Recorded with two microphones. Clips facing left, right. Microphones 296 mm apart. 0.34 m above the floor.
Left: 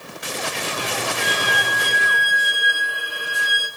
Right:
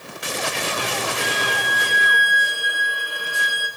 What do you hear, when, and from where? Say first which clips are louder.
1.2 s a violin: even; 5° left (ahead or behind), 10 m